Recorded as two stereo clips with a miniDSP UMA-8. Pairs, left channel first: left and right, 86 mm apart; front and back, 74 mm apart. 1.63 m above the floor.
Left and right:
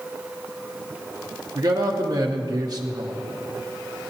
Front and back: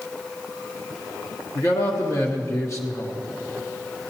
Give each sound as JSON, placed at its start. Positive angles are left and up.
{"t": 1.6, "sound": "a man speaking", "azimuth_deg": -45, "distance_m": 1.0}